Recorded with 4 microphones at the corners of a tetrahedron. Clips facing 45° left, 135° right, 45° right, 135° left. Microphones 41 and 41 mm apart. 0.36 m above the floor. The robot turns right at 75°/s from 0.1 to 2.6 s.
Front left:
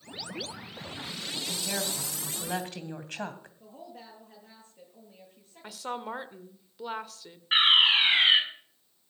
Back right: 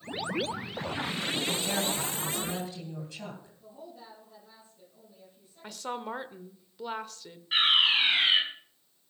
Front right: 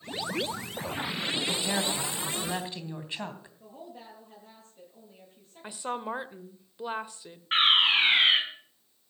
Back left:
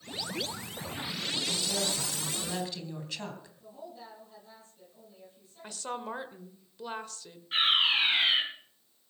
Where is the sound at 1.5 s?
65° right, 2.5 m; by 3.5 s 20° left, 2.5 m.